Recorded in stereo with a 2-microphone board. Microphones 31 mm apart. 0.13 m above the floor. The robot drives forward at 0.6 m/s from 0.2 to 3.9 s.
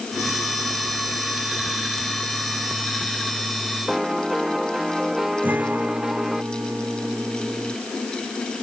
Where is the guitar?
85° right.